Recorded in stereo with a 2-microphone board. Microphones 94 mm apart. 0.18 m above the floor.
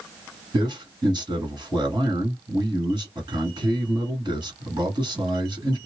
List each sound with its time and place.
0.5 s a man speaking: 45° right (ahead or behind), 1.9 m